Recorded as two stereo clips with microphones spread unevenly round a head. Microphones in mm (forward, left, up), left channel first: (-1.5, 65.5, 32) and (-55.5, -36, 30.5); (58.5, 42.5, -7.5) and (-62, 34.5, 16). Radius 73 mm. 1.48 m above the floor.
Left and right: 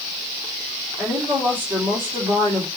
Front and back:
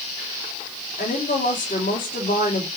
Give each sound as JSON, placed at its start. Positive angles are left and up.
{"t": 1.0, "sound": "a woman speaking", "azimuth_deg": -40, "distance_m": 2.5}